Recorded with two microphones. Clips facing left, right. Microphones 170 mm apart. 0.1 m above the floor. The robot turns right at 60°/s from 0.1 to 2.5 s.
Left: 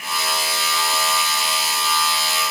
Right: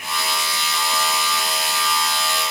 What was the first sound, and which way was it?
Only background noise.